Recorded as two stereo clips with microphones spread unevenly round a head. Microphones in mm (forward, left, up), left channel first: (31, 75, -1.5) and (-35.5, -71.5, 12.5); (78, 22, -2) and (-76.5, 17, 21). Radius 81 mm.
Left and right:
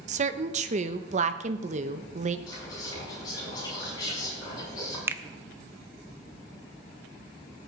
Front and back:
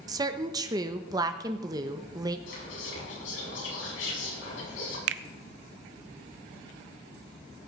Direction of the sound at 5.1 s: 165° left.